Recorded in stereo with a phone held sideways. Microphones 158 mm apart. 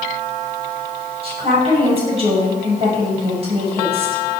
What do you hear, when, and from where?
1.2 s a woman speaking: 40° right (ahead or behind), 6.5 m